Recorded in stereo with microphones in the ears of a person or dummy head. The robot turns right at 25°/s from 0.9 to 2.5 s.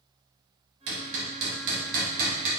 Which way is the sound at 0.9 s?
65° right (ahead or behind).